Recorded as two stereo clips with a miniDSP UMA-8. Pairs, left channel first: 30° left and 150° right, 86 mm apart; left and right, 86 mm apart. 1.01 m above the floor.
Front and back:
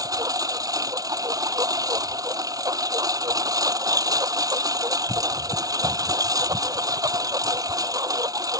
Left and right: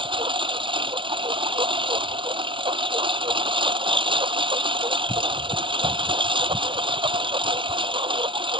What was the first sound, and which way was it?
A lawn mower, 105° right.